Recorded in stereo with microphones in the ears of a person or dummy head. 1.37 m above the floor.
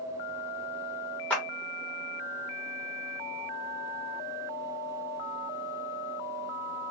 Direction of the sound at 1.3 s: 5° left (ahead or behind).